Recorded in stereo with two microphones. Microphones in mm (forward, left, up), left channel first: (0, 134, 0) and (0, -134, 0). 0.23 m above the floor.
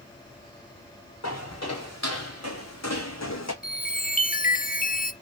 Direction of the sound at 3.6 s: 30° left (ahead or behind).